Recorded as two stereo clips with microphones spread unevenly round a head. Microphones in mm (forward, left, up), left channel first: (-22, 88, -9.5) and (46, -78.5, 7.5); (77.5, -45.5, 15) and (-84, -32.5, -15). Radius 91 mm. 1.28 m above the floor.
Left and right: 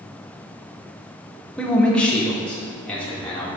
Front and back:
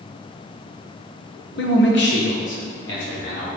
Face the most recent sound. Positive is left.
turn(degrees=30)